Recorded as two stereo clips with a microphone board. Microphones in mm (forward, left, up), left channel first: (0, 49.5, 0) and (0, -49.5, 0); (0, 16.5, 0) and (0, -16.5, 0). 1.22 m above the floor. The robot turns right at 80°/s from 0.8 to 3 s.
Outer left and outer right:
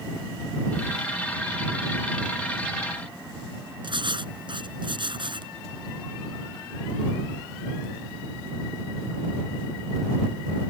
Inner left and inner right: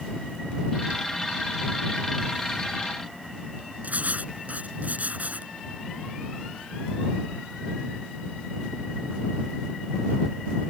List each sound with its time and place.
3.8 s writing: 55° right (ahead or behind)